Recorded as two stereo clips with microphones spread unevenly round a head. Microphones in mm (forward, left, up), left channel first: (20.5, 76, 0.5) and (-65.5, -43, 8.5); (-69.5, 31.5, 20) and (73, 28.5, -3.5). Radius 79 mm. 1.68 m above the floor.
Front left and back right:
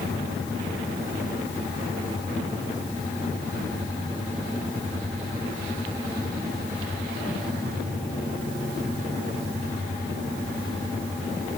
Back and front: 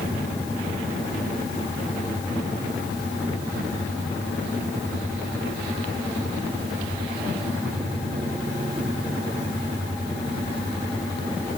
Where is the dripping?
I don't hear dripping.